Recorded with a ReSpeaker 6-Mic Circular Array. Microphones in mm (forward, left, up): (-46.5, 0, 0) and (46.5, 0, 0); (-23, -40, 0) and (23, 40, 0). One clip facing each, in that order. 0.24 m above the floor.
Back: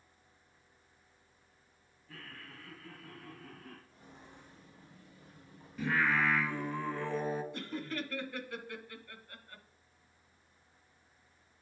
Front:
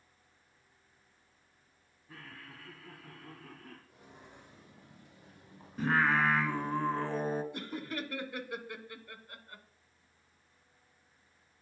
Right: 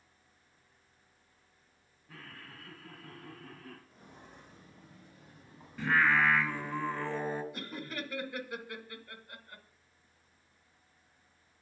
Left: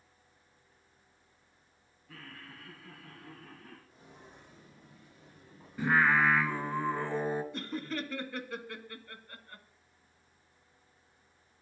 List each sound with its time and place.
2.1 s laughter: 70° right, 1.5 m; by 3.8 s 90° right, 2.5 m
3.9 s footsteps: 80° right, 3.5 m; by 6.8 s 55° right, 3.5 m
5.8 s singing: 10° right, 1.1 m
7.5 s laughter: 55° right, 1.0 m